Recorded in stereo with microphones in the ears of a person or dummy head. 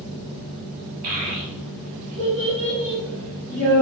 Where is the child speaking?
35° right (ahead or behind), 0.9 m; by 3.8 s 15° right (ahead or behind), 1.4 m.